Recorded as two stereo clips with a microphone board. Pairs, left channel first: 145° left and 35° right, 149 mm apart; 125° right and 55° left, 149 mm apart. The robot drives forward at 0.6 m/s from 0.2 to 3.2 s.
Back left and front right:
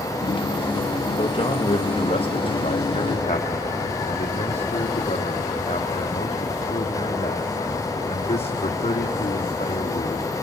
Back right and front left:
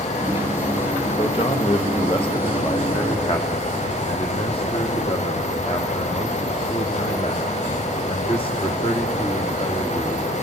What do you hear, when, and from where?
1.2 s a man speaking: 165° right, 2 m; by 10.2 s 170° right, 3 m